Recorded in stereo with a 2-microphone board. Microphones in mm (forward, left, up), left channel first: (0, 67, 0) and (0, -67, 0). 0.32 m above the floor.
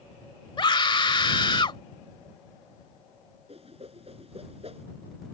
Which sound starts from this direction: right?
A whoosh, at 3.5 s.